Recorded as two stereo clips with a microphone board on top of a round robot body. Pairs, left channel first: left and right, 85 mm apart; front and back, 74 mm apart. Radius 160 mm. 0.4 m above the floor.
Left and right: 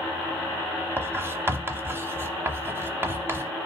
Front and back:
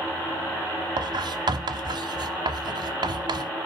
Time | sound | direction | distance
1.0 | writing | 155° right | 0.8 m